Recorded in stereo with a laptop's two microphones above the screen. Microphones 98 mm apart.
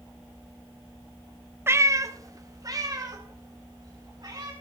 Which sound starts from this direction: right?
A cat meowing, at 1.7 s.